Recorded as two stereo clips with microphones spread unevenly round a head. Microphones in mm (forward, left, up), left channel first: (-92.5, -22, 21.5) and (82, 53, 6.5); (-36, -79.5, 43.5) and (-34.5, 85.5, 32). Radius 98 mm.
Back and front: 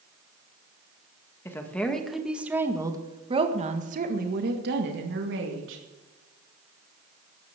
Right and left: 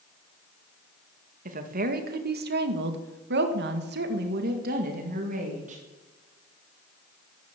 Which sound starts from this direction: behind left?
A woman speaking, at 1.4 s.